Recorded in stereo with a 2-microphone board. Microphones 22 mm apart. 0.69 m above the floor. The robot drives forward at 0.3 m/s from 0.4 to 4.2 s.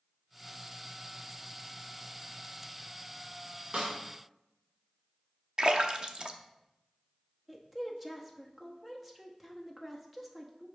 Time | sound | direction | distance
3.7 | a snare drum | 75° right (ahead or behind) | 1.5 m
5.6 | a splash | 40° right (ahead or behind) | 0.6 m
7.5 | a woman speaking | 5° right (ahead or behind) | 0.9 m